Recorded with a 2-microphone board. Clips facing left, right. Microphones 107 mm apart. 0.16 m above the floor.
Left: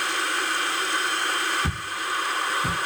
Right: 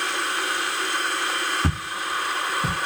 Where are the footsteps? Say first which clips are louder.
Right 2 dB; 55° right (ahead or behind), 1.3 m; by 2.8 s 85° right, 0.9 m.